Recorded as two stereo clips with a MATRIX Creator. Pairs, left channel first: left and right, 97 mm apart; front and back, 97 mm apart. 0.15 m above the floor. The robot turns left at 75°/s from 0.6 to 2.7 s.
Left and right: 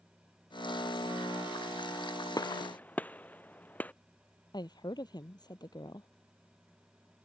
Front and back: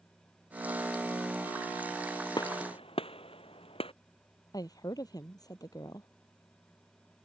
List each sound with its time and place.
2.4 s a gunshot: 40° left; by 3.9 s 15° left
4.5 s a woman speaking: 50° left